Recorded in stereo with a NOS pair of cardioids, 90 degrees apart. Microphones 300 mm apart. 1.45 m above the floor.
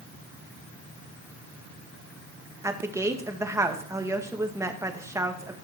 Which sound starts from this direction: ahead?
A woman speaking, at 2.6 s.